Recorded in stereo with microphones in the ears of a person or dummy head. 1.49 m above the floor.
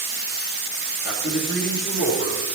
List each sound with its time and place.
1.0 s a man speaking: 60° left (ahead or behind), 3 m; by 2.6 s 55° left (ahead or behind), 5 m